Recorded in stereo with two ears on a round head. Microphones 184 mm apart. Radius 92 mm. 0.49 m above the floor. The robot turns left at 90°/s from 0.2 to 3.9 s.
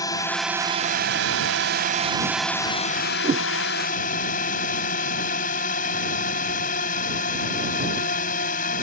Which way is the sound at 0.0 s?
20° left.